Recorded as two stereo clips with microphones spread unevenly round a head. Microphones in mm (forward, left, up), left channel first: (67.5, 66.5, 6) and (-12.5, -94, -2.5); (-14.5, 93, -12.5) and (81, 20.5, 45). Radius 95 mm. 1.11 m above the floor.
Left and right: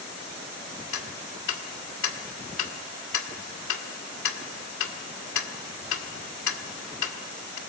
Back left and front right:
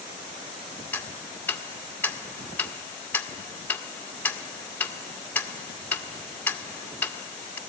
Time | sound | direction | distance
0.9 | ticking | 65° left | 1.9 m